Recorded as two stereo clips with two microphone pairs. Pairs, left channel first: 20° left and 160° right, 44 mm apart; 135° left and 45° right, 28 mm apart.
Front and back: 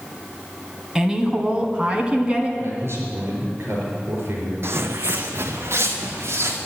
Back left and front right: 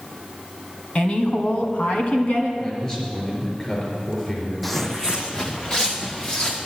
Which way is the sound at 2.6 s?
170° right.